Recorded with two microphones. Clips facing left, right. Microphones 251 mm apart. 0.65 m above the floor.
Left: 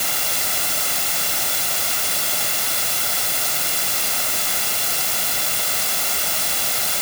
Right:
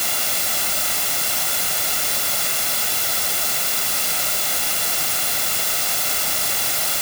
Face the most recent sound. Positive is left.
No sound to turn to.